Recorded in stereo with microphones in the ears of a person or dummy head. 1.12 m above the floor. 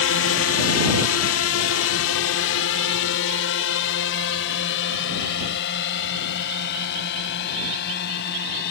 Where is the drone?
60° left (ahead or behind).